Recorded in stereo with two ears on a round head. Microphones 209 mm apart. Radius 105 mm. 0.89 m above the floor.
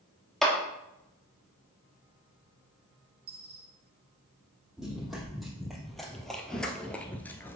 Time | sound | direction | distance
0.4 | a clap | centre (ahead or behind) | 1.7 m
3.3 | a dropped coin | 75° right (ahead or behind) | 3.5 m
4.8 | running footsteps | centre (ahead or behind) | 2.5 m